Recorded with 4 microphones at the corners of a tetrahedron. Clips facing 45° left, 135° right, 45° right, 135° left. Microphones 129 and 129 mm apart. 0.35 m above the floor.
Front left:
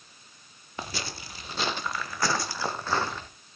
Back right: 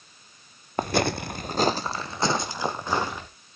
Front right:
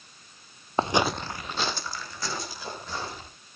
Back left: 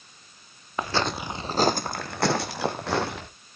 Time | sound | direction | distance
0.8 | footsteps | 105° right | 0.7 m